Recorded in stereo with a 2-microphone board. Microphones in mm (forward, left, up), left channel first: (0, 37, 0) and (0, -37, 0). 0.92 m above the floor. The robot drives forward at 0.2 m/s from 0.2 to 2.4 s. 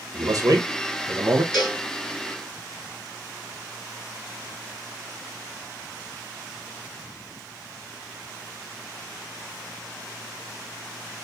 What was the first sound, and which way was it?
A man speaking, 45° right (ahead or behind).